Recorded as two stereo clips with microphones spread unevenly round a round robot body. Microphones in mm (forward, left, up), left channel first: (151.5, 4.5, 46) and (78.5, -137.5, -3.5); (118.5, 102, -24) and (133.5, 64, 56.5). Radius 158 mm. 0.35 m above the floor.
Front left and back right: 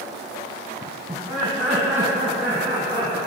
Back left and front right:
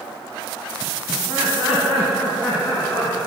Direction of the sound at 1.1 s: 165° left.